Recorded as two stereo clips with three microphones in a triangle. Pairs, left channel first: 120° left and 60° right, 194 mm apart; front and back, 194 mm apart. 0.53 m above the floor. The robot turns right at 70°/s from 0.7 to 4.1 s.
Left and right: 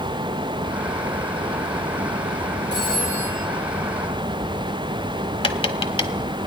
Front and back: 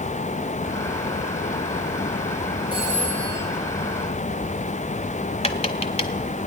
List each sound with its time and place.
2.7 s a phone ringing: 100° left, 8.5 m; by 3.4 s 150° left, 8.5 m
5.4 s tapping: 55° left, 1.1 m